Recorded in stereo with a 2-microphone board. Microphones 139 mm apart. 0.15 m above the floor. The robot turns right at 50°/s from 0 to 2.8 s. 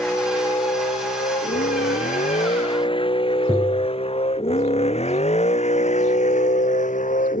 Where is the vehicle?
10° left (ahead or behind); by 7.4 s 70° left (ahead or behind).